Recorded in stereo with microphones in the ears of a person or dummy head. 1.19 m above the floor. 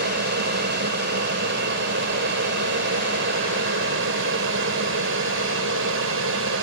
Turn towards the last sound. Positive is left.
turn(degrees=-70)  # may be behind; listen again after turning